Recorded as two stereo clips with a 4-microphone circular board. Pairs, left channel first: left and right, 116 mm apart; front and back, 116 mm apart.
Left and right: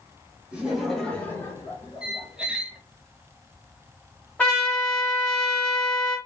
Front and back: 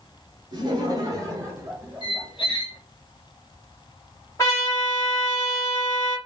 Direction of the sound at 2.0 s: 10° right.